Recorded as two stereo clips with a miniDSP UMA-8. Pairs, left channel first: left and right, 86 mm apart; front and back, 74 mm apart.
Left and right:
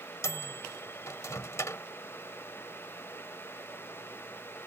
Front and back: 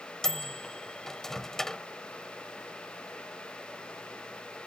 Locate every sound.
0.2 s a microwave: 80° left